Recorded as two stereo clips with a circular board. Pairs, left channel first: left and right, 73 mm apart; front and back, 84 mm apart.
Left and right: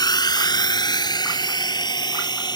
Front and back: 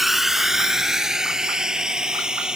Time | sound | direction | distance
0.0 | a drone | 90° left | ?